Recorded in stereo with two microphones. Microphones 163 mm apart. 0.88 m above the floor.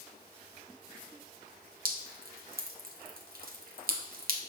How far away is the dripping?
About 0.8 m.